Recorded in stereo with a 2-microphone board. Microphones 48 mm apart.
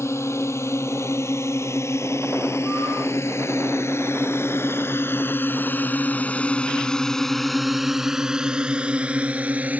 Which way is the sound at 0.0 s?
80° left.